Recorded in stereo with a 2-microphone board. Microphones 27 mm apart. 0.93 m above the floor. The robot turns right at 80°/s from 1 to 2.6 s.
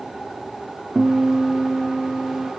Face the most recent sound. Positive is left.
turn(degrees=110)